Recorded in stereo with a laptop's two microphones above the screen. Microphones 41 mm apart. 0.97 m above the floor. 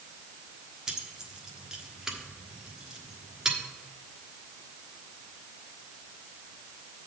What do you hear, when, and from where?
0.9 s keys jangling: 15° right (ahead or behind), 1.2 m